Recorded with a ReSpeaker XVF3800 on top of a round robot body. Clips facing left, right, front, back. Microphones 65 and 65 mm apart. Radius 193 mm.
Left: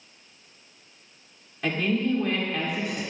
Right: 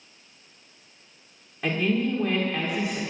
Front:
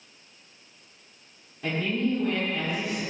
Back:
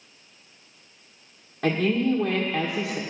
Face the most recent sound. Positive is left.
turn(degrees=-170)